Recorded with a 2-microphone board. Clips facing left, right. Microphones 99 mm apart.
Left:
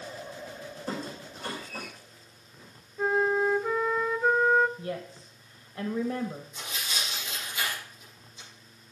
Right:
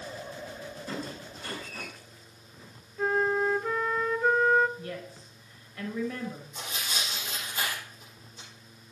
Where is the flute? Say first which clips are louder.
Left 1 dB; 5° left (ahead or behind), 0.6 m.